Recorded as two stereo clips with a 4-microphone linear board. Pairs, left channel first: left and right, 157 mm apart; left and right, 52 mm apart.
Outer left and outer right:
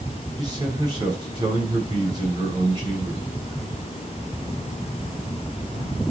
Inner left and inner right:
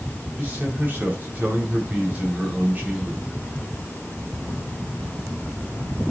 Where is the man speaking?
30° right (ahead or behind), 5 m.